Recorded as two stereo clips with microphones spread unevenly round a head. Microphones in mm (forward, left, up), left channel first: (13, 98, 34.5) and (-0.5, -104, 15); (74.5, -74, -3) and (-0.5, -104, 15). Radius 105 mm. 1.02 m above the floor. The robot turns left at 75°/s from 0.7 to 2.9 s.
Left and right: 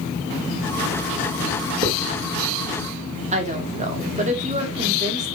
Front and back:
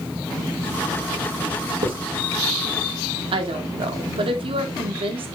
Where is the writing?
160° right, 3.5 m; by 2.1 s straight behind, 3.5 m.